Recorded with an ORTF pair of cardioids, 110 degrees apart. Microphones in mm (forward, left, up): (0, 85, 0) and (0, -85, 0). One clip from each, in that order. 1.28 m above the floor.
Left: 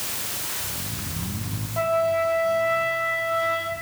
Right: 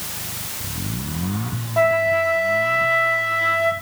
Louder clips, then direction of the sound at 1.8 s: Right 5 dB; 35° right.